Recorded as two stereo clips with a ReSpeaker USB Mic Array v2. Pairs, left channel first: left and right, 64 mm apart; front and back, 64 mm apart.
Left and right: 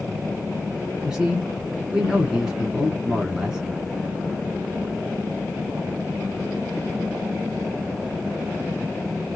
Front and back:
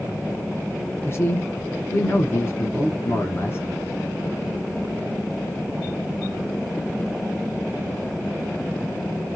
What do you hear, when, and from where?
1.1 s a man speaking: 15° right, 1.3 m